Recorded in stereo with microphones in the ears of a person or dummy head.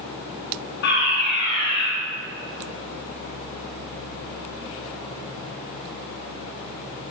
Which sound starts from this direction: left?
A fire alarm, at 0.8 s.